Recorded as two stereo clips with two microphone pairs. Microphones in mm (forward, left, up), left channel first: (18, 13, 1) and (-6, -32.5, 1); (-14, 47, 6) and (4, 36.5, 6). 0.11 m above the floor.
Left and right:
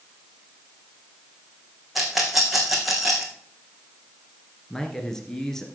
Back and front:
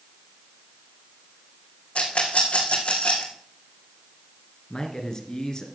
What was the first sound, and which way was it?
A rattle, 155° left.